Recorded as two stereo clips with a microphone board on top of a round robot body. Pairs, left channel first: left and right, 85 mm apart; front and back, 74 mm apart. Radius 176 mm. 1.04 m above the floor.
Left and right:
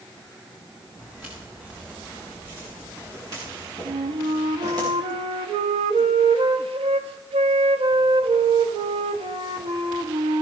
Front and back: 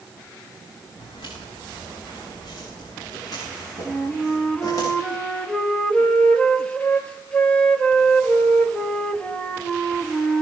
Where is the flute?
75° right, 0.9 m.